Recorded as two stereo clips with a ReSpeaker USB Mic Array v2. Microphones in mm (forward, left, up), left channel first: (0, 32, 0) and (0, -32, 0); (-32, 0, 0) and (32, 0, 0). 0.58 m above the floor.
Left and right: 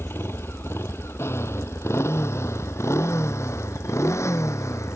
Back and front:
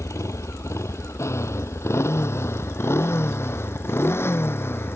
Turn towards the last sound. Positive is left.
turn(degrees=130)